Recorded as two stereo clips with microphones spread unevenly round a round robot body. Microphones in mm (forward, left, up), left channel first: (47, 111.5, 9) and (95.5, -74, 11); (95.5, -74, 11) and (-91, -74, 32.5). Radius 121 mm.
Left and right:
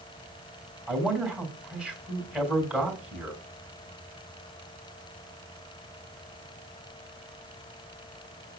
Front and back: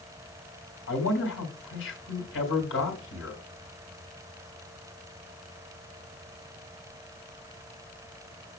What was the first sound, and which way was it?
A man speaking, 10° left.